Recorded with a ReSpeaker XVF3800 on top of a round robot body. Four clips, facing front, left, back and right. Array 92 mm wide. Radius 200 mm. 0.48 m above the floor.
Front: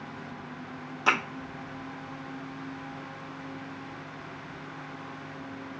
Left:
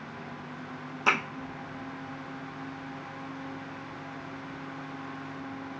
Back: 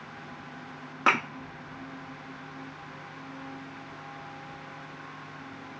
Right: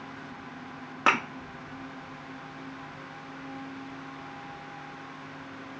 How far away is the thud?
About 1.0 m.